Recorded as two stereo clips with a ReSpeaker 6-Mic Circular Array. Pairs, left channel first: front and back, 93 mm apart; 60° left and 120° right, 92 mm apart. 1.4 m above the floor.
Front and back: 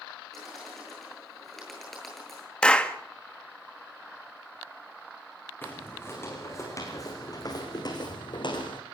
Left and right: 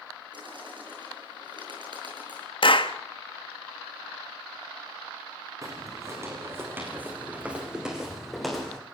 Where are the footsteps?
65° right, 5.5 m; by 8.8 s 25° right, 5 m.